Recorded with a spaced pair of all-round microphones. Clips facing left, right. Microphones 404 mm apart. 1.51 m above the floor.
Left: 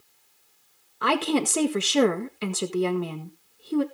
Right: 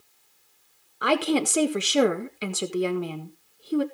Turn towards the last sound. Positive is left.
turn(degrees=5)  # may be behind; listen again after turning